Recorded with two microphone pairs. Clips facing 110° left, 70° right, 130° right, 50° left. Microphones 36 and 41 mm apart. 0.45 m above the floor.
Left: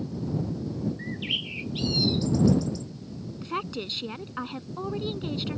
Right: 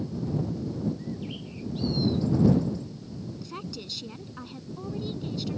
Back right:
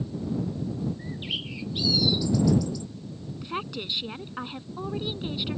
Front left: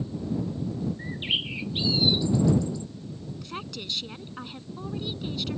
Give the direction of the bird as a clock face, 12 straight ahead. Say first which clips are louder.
Left 6 dB, front left 4 dB; 8 o'clock.